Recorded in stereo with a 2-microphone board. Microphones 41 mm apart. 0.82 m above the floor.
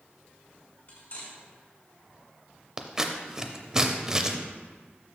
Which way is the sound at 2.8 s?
15° right (ahead or behind).